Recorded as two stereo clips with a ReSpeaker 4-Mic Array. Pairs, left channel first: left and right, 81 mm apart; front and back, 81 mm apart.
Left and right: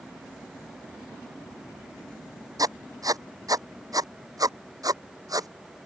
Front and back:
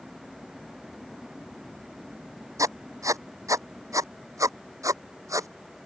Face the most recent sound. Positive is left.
turn(degrees=-130)